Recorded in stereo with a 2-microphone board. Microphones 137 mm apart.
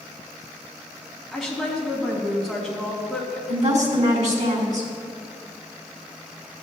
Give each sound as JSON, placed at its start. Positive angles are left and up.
{"t": 1.3, "sound": "a woman speaking", "side_deg": 0, "distance_m": 2.5}
{"t": 3.5, "sound": "a woman speaking", "side_deg": -60, "distance_m": 1.8}